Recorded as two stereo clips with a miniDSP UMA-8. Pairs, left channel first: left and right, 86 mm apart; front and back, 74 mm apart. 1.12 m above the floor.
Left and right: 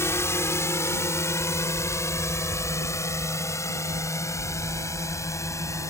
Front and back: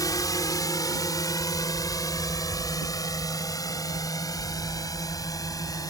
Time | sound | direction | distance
0.0 | a drone | 35° left | ?